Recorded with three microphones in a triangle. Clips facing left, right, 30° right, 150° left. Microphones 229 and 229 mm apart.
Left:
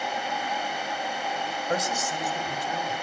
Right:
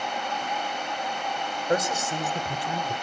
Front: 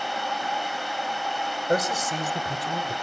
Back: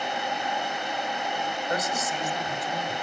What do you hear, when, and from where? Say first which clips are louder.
1.7 s a man speaking: right 4 dB, front 7 dB; 25° right, 1.6 m; by 2.9 s 75° right, 1.3 m